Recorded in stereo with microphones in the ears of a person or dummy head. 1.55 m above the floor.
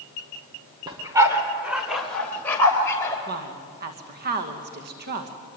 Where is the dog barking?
25° right (ahead or behind), 2 m; by 3.2 s 10° left (ahead or behind), 3.5 m.